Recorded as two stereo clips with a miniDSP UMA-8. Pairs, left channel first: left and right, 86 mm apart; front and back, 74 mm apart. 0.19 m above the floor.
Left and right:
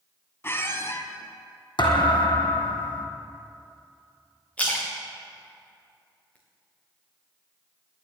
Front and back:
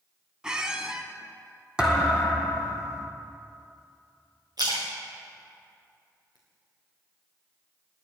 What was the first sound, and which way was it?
A squeak, 110° left.